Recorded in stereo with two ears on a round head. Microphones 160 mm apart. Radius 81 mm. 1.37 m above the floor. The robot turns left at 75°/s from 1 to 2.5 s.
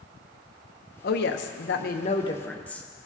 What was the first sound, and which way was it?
A woman speaking, 120° left.